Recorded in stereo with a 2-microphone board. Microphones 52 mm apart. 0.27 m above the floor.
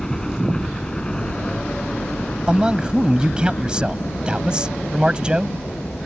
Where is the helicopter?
10° left (ahead or behind); by 6.1 s 40° left (ahead or behind).